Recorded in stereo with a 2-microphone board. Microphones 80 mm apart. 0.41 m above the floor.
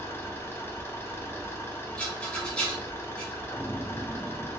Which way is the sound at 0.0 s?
30° left (ahead or behind).